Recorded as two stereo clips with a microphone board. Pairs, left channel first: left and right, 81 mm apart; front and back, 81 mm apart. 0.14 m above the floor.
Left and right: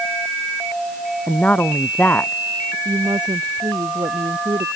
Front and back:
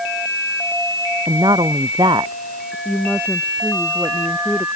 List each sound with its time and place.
1.3 s a woman speaking: 160° left
2.9 s a woman speaking: 70° right